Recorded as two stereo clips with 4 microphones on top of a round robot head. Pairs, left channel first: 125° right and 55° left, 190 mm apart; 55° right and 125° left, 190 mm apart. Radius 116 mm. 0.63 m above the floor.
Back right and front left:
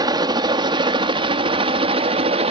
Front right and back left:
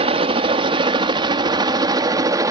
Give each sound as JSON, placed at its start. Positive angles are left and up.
{"t": 0.0, "sound": "a helicopter", "azimuth_deg": 105}